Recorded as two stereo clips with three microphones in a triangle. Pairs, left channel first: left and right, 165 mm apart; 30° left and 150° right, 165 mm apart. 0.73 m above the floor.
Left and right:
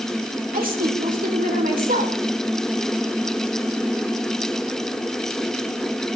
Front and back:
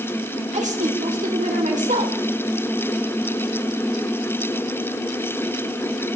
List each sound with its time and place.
0.5 s a woman speaking: 110° right, 3 m